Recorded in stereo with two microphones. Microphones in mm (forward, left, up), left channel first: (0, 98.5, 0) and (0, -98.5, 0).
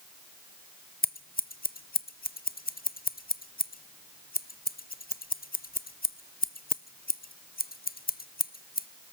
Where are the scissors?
50° left (ahead or behind), 0.6 m.